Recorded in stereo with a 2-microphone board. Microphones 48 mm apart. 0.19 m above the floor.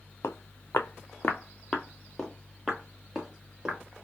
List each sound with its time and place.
0.2 s footsteps: 75° left (ahead or behind), 0.7 m; by 3.8 s 15° right (ahead or behind), 1.9 m